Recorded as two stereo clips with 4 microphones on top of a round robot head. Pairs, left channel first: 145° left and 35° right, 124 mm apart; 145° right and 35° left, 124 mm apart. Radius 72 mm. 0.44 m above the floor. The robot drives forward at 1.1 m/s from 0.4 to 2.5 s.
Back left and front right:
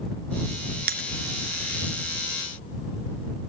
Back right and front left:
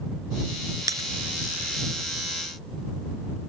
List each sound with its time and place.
0.9 s breaking glass: 30° right; by 1.1 s 35° right